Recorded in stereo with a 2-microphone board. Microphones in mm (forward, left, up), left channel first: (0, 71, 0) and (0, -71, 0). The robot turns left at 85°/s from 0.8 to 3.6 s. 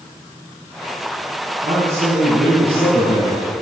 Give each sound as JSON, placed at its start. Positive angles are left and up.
{"t": 1.6, "sound": "a man speaking", "azimuth_deg": -140, "distance_m": 3.5}